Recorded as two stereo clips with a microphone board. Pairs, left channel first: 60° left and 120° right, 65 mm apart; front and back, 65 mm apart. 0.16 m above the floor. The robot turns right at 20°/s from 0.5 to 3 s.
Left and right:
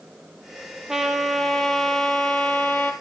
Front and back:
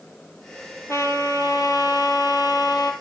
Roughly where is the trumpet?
Ahead right.